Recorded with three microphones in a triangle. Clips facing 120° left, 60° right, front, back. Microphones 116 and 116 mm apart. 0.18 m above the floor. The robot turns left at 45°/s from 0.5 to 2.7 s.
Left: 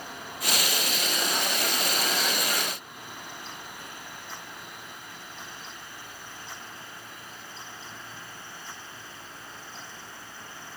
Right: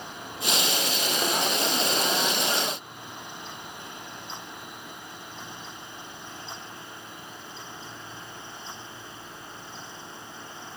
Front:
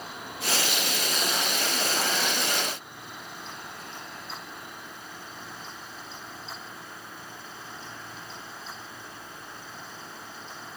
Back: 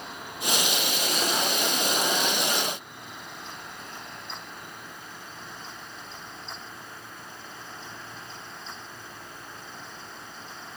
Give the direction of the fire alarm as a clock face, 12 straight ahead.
No fire alarm in this recording.